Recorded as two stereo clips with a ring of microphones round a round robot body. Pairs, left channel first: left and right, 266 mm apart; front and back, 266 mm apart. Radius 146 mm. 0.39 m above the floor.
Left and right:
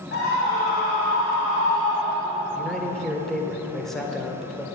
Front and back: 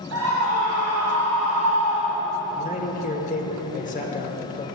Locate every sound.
0.1 s a scream: 145° left, 2 m
2.5 s a man speaking: 5° left, 1.3 m